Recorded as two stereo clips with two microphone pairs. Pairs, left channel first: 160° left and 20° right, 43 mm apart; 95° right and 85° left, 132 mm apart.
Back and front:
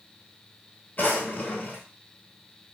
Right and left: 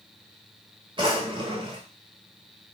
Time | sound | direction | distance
1.0 | a drawer | 130° left | 0.8 m